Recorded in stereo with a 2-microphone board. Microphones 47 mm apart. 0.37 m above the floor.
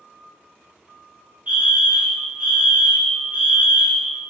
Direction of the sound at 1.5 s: 30° right (ahead or behind).